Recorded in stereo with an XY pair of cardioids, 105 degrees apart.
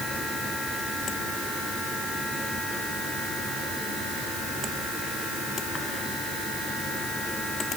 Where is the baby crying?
I don't hear a baby crying.